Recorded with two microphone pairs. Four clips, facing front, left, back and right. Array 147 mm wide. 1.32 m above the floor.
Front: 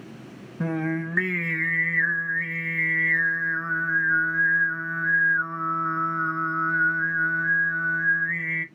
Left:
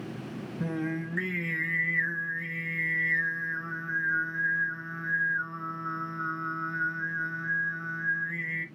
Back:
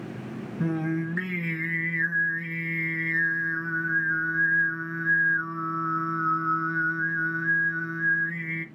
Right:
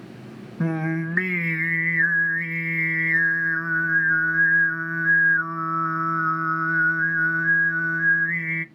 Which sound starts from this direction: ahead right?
Singing, at 0.6 s.